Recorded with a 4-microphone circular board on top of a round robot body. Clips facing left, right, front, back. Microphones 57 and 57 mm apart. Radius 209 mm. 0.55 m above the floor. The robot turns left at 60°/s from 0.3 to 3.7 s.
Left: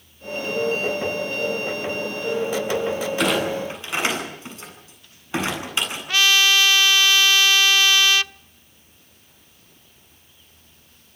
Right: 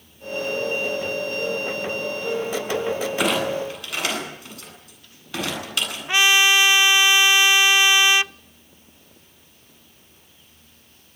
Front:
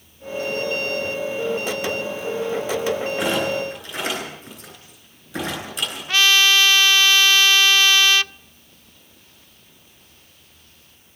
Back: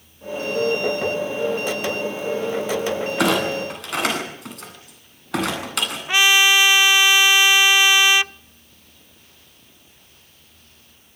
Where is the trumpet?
130° right, 0.7 m.